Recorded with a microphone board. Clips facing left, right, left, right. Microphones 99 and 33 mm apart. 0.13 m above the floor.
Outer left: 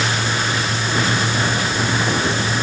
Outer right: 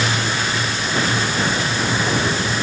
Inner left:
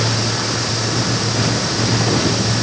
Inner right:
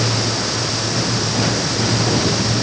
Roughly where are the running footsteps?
No running footsteps in this recording.